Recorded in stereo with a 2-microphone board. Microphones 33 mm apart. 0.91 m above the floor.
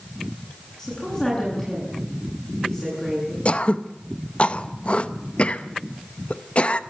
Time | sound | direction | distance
0.8 | a woman speaking | 15° left (ahead or behind) | 9 m
3.5 | throat clearing | 45° left (ahead or behind) | 0.8 m